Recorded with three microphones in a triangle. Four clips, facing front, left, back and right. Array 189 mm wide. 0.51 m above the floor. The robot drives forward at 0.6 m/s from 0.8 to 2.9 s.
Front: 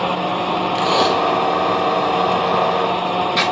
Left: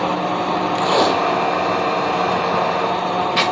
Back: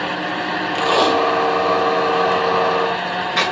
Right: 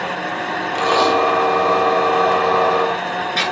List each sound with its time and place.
0.8 s tape being pulled: 110° left, 1.8 m; by 3.5 s 140° left, 2.5 m